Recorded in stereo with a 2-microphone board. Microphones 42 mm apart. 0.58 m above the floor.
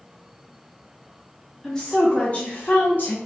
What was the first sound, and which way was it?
A woman speaking, 10° left (ahead or behind).